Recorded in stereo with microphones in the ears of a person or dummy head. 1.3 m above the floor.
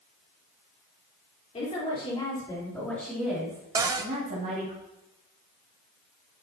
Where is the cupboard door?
15° right (ahead or behind), 0.5 m.